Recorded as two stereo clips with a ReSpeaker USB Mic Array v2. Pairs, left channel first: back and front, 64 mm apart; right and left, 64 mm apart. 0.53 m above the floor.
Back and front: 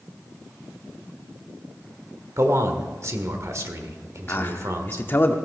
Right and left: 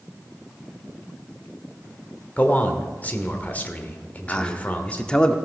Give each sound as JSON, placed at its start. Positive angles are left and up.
{"t": 2.4, "sound": "a man speaking", "azimuth_deg": -30, "distance_m": 1.2}
{"t": 4.3, "sound": "a man speaking", "azimuth_deg": -155, "distance_m": 0.8}